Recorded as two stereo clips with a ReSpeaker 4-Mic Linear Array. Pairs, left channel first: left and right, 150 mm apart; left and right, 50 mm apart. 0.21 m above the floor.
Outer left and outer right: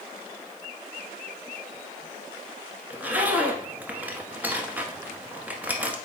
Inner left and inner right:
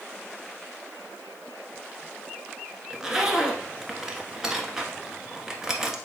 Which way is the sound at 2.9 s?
10° right (ahead or behind).